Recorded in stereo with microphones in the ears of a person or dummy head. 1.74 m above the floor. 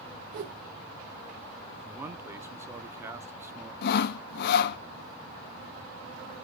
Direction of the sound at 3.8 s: 55° left (ahead or behind).